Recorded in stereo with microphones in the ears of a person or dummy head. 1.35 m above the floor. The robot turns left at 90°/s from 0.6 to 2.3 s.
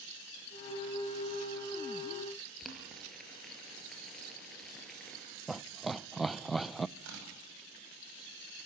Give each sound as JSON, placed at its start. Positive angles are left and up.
{"t": 2.6, "sound": "boiling", "side_deg": 0, "distance_m": 5.5}
{"t": 5.5, "sound": "laughter", "side_deg": -5, "distance_m": 0.5}
{"t": 7.0, "sound": "tearing paper", "side_deg": -85, "distance_m": 9.5}